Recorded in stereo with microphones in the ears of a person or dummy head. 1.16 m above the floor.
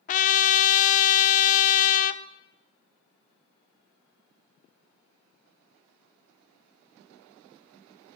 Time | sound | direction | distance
0.1 | a trumpet | 40° left (ahead or behind) | 0.5 m